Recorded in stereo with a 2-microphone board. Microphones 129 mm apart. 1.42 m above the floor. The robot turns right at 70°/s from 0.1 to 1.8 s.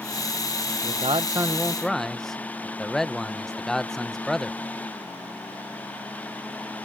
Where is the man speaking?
65° right; by 4.6 s 5° left.